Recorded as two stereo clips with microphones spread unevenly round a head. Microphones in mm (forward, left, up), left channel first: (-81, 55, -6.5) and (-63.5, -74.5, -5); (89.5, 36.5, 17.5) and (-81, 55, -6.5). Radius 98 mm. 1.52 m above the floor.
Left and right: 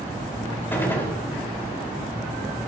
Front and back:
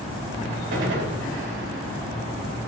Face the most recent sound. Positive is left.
turn(degrees=170)